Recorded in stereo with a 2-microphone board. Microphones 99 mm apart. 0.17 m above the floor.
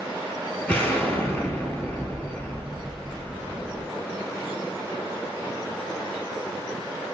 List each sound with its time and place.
0.7 s an explosion: 15° left (ahead or behind), 0.8 m